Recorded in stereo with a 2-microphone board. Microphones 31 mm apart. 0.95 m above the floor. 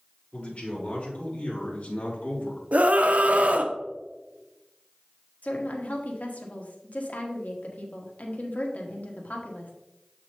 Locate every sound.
0.3 s a man speaking: 50° left (ahead or behind), 3.5 m; by 2.6 s 75° left (ahead or behind), 1.7 m
2.7 s a scream: 60° right (ahead or behind), 0.7 m
5.4 s a woman speaking: 60° left (ahead or behind), 1.3 m